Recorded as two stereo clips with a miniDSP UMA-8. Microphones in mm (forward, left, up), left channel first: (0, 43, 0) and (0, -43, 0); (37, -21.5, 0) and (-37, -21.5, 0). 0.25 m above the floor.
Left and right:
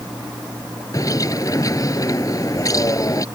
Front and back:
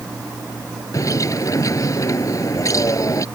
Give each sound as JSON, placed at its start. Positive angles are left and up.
{"t": 0.9, "sound": "a bird", "azimuth_deg": 45}